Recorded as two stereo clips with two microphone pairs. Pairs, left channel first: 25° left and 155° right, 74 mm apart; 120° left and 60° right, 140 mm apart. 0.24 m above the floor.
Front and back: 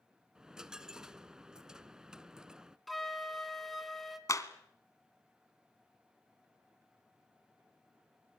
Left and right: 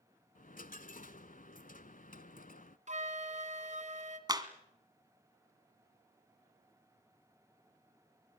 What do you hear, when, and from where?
0.3 s a dropped coin: 125° left, 0.7 m
2.9 s a flute: 65° right, 2 m
4.3 s a clap: 5° right, 1.8 m